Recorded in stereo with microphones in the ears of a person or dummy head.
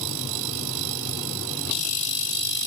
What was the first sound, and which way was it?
Only background noise.